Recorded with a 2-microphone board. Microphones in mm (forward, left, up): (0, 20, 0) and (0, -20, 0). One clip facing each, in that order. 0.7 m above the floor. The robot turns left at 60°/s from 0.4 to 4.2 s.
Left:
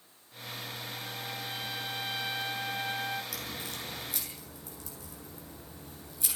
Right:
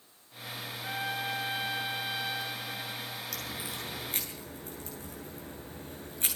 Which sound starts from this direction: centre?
A crack, at 3.3 s.